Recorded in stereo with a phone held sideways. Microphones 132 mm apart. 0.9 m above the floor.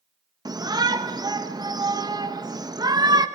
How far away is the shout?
About 1.1 m.